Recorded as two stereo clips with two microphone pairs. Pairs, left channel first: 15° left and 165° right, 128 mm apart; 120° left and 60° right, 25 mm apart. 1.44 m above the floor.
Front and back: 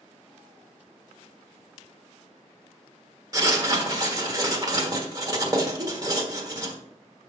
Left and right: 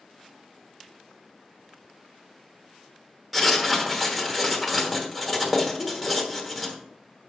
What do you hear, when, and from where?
3.3 s writing: 140° right, 1.2 m
5.8 s a whoosh: 170° right, 0.7 m